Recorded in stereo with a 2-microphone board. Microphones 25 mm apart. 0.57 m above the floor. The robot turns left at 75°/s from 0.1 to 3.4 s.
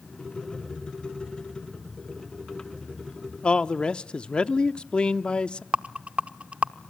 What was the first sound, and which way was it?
A man speaking, 40° left (ahead or behind).